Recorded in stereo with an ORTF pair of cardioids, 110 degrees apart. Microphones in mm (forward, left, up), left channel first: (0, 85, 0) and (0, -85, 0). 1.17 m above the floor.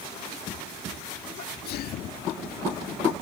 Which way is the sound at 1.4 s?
65° left.